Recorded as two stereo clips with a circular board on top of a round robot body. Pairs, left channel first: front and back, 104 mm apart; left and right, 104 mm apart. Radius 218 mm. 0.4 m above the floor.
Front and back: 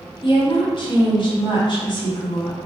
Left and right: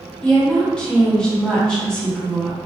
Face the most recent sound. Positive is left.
turn(degrees=10)